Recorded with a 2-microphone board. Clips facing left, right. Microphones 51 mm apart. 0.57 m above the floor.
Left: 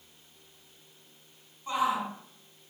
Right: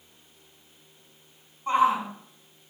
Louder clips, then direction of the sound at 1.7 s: Right 6 dB; 50° right (ahead or behind).